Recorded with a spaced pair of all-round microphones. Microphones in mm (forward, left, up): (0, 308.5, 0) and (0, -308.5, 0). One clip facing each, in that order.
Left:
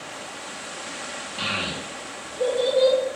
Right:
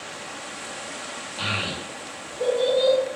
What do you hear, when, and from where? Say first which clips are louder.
1.4 s a child speaking: even; 40° left (ahead or behind), 1.0 m